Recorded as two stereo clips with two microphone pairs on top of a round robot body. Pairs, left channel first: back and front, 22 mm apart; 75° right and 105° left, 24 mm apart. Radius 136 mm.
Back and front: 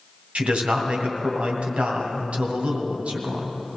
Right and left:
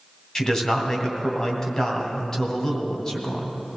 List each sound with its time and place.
0.3 s a man speaking: 10° right, 2.5 m